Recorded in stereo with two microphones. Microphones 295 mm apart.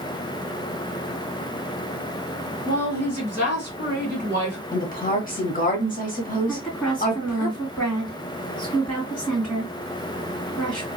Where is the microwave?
I don't hear a microwave.